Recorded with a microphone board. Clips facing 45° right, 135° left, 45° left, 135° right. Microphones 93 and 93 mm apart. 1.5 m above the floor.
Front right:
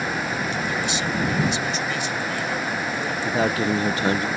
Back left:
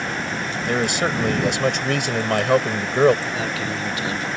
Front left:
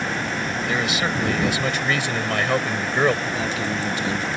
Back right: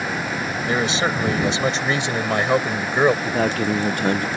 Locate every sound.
0.7 s a man speaking: 165° left; by 3.1 s 150° left
3.2 s a man speaking: 100° right